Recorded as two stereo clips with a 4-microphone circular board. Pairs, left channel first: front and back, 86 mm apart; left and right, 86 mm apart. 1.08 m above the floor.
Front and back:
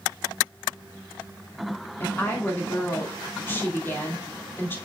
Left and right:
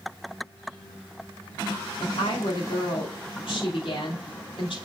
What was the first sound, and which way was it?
A woman speaking, 65° left.